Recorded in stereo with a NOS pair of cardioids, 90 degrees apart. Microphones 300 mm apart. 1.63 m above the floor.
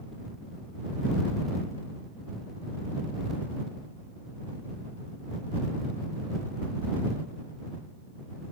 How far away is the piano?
I don't hear a piano.